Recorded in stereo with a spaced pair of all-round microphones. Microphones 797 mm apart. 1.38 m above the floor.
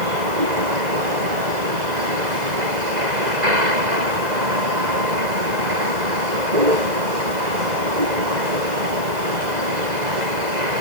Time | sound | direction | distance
0.0 | a vehicle | 60° right (ahead or behind) | ?